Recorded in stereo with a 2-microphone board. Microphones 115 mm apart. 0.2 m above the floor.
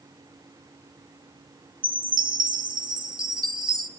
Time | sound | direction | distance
1.8 | a chime | 45° right (ahead or behind) | 0.7 m